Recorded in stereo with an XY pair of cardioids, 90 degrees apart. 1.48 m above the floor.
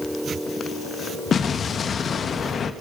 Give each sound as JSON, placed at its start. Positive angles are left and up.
{"t": 1.3, "sound": "an explosion", "azimuth_deg": 60, "distance_m": 1.4}